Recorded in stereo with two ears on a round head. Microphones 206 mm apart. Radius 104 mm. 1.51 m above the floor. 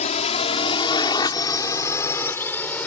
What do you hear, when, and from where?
0.0 s a drone: 30° left (ahead or behind); by 2.9 s 5° left (ahead or behind)